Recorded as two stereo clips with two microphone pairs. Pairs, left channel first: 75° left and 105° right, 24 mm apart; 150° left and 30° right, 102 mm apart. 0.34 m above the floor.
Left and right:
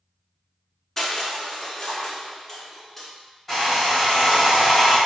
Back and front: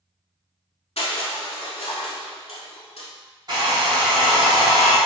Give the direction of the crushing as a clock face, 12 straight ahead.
7 o'clock.